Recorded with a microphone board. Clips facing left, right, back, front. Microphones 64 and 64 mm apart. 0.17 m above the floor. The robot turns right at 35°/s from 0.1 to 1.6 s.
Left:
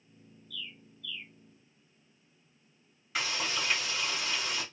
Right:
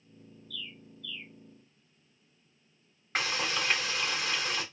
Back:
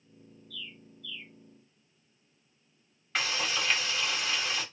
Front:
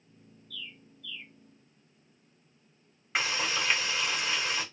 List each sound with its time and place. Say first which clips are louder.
0.5 s a bird: even, even; 160° left, 2 m; by 1.3 s 170° right, 2 m
3.1 s frying: right 2 dB, front 1 dB; 75° right, 1.3 m